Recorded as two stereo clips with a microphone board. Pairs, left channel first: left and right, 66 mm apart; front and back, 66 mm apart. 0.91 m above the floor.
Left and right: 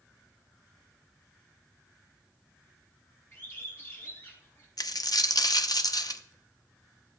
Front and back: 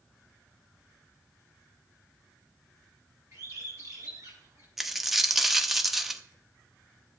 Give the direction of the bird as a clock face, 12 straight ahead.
7 o'clock.